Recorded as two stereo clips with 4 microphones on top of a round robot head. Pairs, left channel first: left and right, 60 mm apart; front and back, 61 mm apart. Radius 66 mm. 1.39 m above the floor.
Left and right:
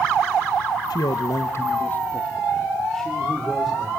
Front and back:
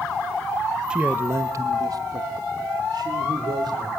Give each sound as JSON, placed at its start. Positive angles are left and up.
{"t": 0.9, "sound": "a man speaking", "azimuth_deg": 105, "distance_m": 1.1}